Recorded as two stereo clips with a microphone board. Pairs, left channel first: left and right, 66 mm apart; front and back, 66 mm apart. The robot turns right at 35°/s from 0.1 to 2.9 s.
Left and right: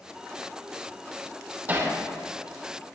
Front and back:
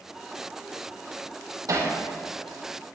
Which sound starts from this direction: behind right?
Hammering, at 1.7 s.